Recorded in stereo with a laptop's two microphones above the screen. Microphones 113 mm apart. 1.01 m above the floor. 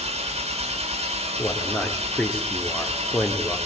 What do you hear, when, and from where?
0.0 s an engine running: 70° right (ahead or behind), 4 m
1.4 s a man speaking: 15° left (ahead or behind), 2.5 m